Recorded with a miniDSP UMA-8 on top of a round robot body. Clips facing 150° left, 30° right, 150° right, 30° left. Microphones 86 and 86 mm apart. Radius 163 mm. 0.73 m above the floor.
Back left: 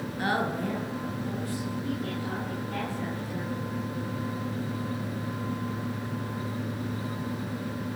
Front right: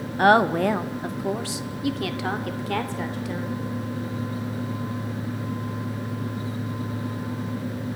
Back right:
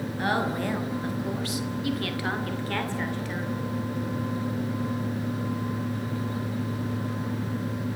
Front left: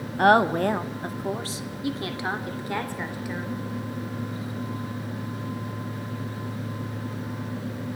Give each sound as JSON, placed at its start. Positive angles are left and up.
{"t": 0.2, "sound": "a woman speaking", "azimuth_deg": 5, "distance_m": 1.5}